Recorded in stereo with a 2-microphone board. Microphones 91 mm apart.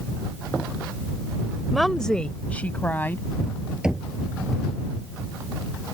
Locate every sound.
1.7 s a woman speaking: centre (ahead or behind); by 3.7 s 25° left (ahead or behind)
3.8 s knocking: 10° right (ahead or behind)